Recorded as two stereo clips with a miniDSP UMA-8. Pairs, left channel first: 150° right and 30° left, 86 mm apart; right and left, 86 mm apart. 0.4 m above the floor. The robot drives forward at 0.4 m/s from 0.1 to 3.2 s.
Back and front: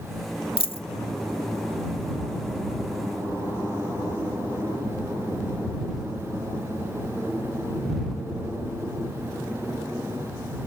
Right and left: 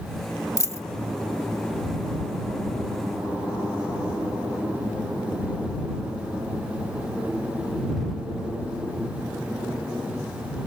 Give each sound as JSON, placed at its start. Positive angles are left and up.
{"t": 0.6, "sound": "a dropped coin", "azimuth_deg": -145}